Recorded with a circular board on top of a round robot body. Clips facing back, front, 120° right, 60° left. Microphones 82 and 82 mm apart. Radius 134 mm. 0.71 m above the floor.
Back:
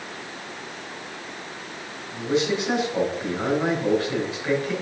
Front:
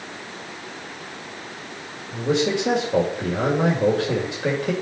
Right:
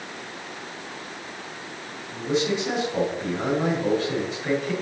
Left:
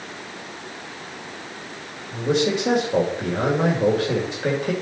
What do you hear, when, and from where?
2.1 s a man speaking: 25° left, 3 m